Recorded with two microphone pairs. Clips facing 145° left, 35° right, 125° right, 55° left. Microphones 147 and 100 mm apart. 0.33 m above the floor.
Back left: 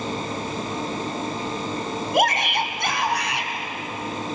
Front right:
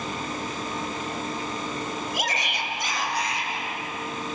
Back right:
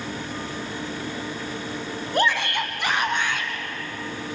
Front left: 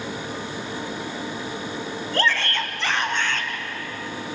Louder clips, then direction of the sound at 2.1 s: Back left 9 dB, back right 1 dB; 165° left.